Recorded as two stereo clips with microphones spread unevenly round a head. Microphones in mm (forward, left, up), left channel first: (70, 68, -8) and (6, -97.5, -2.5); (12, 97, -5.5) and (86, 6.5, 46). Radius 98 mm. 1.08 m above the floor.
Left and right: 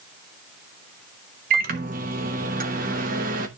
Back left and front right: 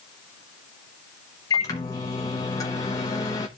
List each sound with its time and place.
1.5 s a microwave: 165° right, 1.0 m